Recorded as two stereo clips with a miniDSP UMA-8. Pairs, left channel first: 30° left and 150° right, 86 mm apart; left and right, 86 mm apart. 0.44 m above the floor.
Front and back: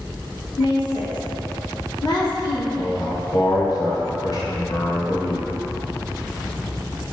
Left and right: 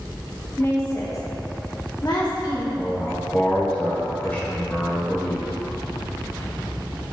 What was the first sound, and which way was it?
A woman speaking, 30° left.